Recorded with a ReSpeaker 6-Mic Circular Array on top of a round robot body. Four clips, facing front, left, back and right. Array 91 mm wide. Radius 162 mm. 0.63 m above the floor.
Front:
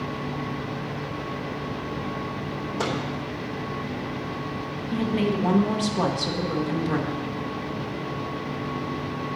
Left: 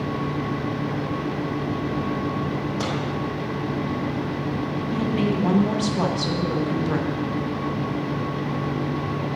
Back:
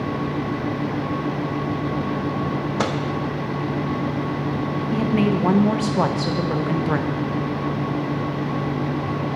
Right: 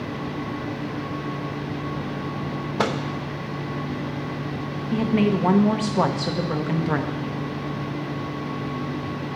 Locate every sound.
2.8 s a microwave: 135° right, 1.0 m
4.9 s a woman speaking: 140° right, 1.1 m